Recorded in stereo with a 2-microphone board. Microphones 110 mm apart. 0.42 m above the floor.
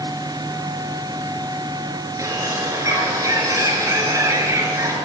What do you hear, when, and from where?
2.2 s a bird: 30° right (ahead or behind), 3.5 m